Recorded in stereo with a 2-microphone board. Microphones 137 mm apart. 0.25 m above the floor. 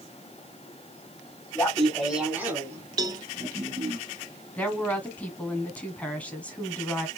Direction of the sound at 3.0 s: 30° right (ahead or behind).